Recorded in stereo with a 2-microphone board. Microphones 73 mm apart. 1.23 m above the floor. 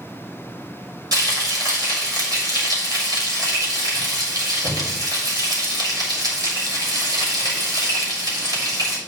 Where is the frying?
60° right (ahead or behind), 4.5 m.